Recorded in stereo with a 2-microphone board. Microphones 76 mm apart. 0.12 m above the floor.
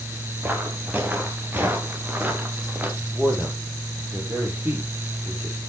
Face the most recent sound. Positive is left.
turn(degrees=-25)  # may be behind; listen again after turning